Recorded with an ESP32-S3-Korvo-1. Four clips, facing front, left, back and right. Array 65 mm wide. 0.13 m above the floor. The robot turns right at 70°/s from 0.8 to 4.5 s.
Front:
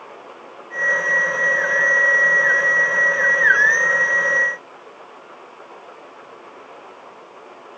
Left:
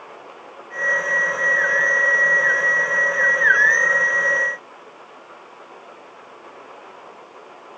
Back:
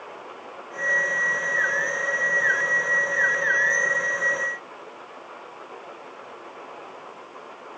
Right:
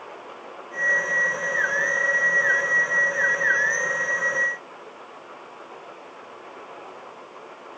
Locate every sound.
Only background noise.